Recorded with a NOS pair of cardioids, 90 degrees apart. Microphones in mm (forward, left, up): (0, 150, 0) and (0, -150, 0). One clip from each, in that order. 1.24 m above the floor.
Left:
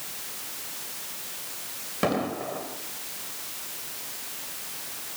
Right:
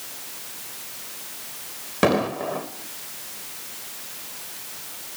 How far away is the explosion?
About 3 m.